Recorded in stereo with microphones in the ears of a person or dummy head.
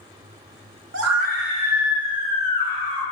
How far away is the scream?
About 0.7 m.